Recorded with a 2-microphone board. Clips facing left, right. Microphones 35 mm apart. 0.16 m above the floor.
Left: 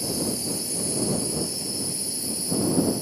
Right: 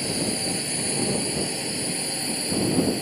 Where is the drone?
45° right (ahead or behind); by 3.0 s 50° right (ahead or behind).